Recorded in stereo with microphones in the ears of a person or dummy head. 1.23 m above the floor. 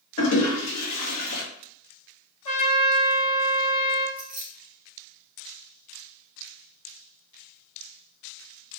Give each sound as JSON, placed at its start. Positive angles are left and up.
{"t": 0.2, "sound": "a toilet flushing", "side_deg": 80, "distance_m": 1.2}
{"t": 2.5, "sound": "a trumpet", "side_deg": 40, "distance_m": 1.1}
{"t": 4.2, "sound": "keys jangling", "side_deg": -5, "distance_m": 0.6}